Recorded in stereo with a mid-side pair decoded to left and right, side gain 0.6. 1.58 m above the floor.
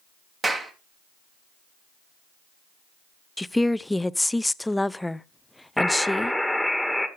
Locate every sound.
0.4 s a clap: 25° right, 2 m
3.4 s a woman speaking: 5° left, 0.5 m
5.8 s a buzzer: straight ahead, 1.8 m